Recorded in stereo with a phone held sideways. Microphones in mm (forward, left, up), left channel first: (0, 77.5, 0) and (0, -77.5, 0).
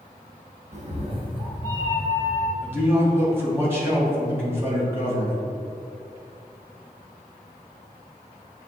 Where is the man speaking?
15° right (ahead or behind), 1.7 m.